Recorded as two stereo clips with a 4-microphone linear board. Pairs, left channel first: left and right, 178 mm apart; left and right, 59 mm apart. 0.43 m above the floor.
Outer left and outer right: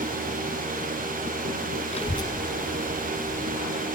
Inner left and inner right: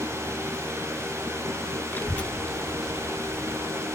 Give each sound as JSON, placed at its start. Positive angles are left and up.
{"t": 1.9, "sound": "a child speaking", "side_deg": 35, "distance_m": 0.6}